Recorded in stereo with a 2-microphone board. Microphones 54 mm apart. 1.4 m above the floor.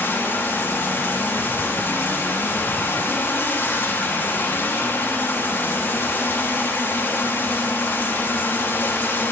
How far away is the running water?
About 1.5 m.